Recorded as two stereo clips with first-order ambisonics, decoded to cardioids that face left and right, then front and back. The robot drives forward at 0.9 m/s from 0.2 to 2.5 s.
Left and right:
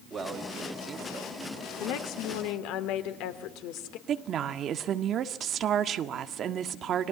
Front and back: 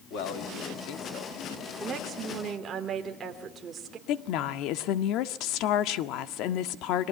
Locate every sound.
0.1 s a man speaking: 15° right, 2.5 m; by 1.3 s 20° right, 1.7 m
1.8 s a woman speaking: 105° left, 2.5 m; by 4.0 s 115° left, 3 m
4.1 s a woman speaking: 35° right, 1.6 m